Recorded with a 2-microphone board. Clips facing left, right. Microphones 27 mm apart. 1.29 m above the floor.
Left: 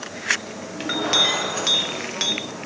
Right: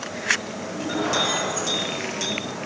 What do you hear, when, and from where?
0.8 s a clink: 50° left (ahead or behind), 1.7 m